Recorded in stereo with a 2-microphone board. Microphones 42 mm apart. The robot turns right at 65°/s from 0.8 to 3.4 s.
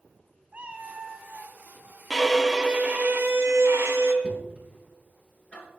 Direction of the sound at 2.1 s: 170° left.